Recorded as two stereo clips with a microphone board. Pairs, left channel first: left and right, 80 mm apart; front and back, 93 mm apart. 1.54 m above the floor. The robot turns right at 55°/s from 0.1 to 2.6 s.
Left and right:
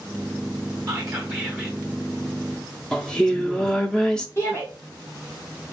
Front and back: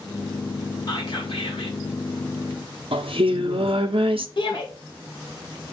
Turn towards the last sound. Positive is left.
turn(degrees=35)